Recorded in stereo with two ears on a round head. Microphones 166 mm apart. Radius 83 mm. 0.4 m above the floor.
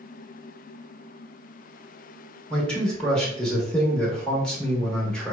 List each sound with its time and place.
2.5 s a man speaking: 5° left (ahead or behind), 0.8 m